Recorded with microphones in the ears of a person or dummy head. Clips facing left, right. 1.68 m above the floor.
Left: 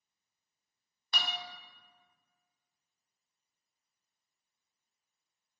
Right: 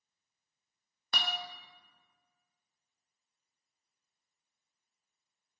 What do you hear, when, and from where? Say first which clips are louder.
1.1 s a guitar: right 2 dB; 50° right (ahead or behind), 0.5 m